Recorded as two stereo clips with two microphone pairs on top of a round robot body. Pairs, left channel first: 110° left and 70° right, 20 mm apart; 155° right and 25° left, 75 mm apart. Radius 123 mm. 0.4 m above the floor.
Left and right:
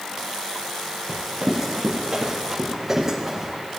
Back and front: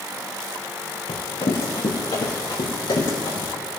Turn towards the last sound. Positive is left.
turn(degrees=-140)